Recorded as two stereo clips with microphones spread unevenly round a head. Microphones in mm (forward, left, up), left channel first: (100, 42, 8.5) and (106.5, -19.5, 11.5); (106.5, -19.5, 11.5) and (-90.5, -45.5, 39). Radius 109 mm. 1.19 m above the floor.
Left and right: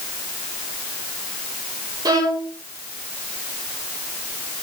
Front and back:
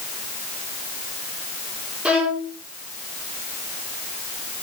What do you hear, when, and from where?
2.0 s a violin: 90° right, 1.6 m